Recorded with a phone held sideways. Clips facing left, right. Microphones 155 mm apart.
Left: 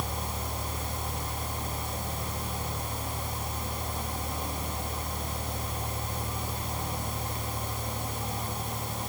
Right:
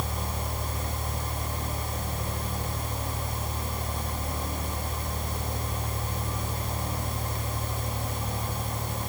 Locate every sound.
0.0 s a fan: 80° right, 3 m